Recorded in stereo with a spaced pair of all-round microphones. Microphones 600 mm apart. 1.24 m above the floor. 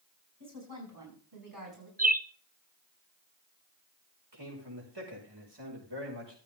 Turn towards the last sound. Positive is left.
turn(degrees=-40)  # may be behind; listen again after turning